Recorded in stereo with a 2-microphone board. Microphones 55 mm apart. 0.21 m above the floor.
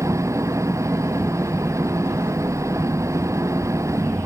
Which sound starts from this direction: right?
An engine running, at 0.0 s.